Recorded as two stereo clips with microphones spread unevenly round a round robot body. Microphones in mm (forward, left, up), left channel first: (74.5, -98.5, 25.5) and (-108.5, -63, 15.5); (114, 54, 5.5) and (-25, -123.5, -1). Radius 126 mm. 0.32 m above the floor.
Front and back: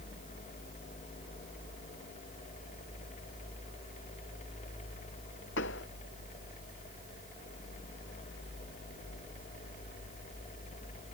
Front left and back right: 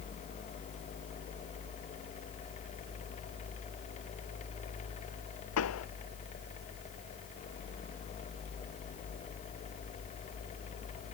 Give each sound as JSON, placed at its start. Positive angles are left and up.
{"t": 5.6, "sound": "a pop", "azimuth_deg": 35}